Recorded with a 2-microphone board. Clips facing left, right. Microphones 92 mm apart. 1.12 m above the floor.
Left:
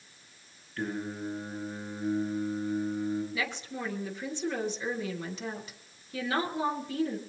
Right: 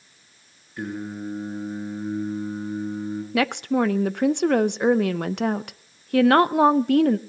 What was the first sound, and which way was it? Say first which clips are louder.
Singing: right 3 dB; 15° right (ahead or behind).